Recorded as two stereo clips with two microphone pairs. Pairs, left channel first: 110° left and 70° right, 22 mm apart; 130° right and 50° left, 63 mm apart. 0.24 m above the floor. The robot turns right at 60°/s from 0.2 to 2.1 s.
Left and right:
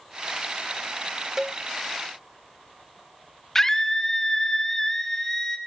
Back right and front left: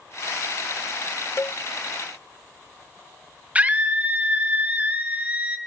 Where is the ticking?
No ticking in this recording.